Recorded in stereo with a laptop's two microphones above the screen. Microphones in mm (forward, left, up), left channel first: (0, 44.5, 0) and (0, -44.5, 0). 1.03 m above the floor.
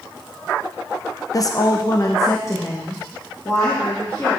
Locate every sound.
1.3 s a woman speaking: 40° left (ahead or behind), 0.5 m; by 4.4 s 25° left (ahead or behind), 2 m